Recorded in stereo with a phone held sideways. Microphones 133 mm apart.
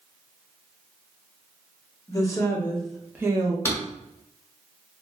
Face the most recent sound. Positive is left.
turn(degrees=20)  # may be behind; listen again after turning